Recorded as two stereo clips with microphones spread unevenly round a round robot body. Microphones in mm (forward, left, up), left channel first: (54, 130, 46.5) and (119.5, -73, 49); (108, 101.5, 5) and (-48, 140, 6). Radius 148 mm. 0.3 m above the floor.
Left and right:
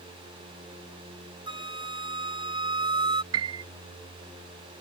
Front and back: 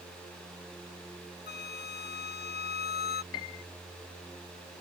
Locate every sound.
1.5 s a flute: 5° right
3.3 s a piano: 80° right